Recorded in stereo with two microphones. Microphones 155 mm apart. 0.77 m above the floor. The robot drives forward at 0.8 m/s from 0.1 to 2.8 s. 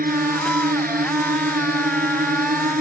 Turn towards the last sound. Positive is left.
turn(degrees=-70)  # may be behind; listen again after turning